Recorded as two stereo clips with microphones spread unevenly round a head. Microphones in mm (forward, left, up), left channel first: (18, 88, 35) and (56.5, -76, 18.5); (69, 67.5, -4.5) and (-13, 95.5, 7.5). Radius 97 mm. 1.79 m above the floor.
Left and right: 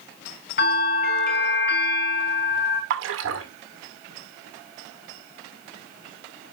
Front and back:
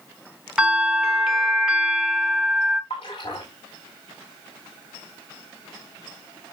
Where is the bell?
85° left, 4.5 m.